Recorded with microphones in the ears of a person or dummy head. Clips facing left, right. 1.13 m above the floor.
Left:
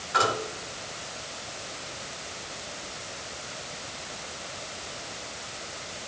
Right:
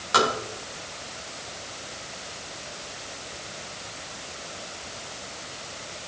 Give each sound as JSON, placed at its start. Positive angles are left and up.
{"t": 0.1, "sound": "tapping", "side_deg": -80, "distance_m": 7.5}